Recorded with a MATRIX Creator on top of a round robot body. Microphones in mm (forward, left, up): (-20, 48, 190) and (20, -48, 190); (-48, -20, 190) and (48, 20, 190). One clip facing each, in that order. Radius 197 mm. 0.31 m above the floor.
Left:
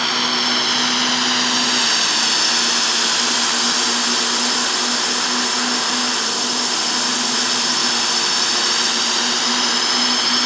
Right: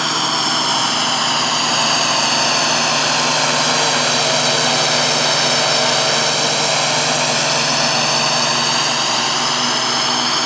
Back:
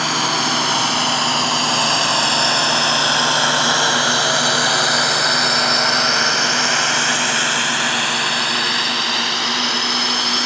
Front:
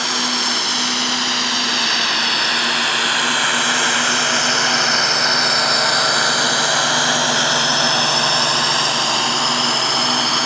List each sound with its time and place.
0.0 s a drone: 120° right; by 10.5 s 25° right